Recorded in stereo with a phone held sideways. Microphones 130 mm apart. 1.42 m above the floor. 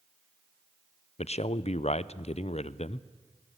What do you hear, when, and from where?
1.2 s a man speaking: 60° left (ahead or behind), 0.5 m